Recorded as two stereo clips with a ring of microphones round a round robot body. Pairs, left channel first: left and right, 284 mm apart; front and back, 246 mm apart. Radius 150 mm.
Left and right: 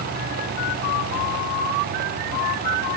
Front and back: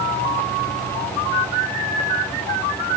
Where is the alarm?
I don't hear an alarm.